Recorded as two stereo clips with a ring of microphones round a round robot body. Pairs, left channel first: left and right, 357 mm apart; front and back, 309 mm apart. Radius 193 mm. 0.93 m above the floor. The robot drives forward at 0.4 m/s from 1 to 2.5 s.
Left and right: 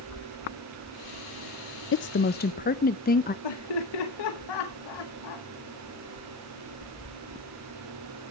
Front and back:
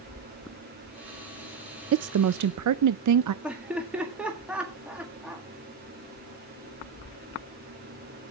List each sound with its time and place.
1.9 s a woman speaking: 140° left, 0.5 m; by 3.3 s 155° left, 0.7 m
3.4 s laughter: 95° left, 1.8 m